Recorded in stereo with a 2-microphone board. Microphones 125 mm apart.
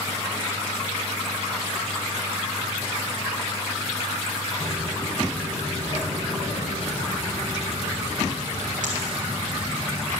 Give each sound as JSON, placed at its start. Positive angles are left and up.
{"t": 4.6, "sound": "footsteps", "side_deg": -50, "distance_m": 1.9}